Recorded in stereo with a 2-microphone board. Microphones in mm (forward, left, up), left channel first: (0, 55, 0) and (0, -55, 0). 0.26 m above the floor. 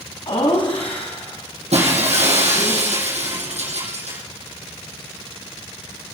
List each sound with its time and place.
0.3 s laughter: 50° left (ahead or behind), 2.5 m; by 2.7 s 65° left (ahead or behind), 3.5 m
1.7 s breaking glass: 85° right, 4.5 m